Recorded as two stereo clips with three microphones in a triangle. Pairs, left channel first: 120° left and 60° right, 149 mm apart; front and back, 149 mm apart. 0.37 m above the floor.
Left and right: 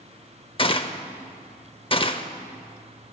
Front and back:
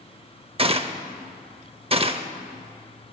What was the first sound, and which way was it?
A gunshot, 155° left.